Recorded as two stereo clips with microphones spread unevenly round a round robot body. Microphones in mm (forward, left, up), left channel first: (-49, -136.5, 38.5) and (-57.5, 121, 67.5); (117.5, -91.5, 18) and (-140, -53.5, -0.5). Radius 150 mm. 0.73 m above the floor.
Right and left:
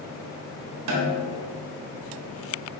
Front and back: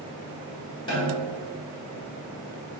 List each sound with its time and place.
0.9 s a snare drum: 70° left, 1.1 m